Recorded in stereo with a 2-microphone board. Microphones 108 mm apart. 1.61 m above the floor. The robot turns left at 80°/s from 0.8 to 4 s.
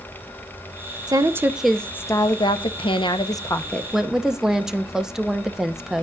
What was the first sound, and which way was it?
A woman speaking, 130° right.